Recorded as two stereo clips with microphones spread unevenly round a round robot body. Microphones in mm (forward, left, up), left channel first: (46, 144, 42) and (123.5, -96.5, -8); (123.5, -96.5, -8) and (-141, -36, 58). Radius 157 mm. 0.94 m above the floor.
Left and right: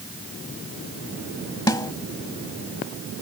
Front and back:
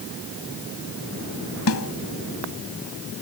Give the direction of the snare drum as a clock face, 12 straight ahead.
11 o'clock.